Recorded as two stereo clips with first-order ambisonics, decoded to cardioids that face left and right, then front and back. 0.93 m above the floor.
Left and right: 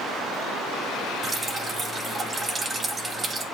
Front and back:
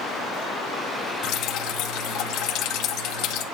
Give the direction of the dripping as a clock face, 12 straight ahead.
1 o'clock.